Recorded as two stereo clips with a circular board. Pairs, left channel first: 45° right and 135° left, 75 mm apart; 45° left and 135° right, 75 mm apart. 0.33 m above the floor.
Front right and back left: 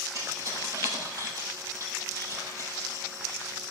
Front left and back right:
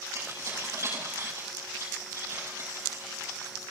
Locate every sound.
0.1 s keys jangling: straight behind, 6.5 m